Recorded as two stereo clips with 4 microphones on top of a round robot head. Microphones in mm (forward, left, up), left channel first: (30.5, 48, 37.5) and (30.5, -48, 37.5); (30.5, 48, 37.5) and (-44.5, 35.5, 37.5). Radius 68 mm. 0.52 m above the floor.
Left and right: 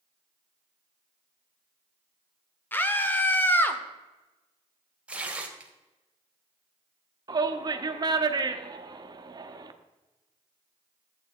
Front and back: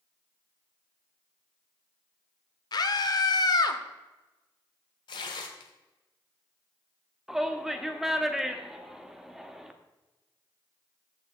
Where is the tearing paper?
15° right, 1.5 m.